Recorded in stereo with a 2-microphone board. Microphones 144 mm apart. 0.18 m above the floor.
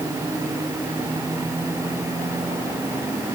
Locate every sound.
Only background noise.